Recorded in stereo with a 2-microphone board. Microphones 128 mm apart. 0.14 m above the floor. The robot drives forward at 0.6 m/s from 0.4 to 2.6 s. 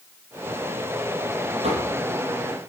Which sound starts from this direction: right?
Knocking, at 1.6 s.